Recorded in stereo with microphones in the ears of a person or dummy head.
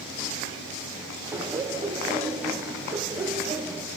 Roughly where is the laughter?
Centre.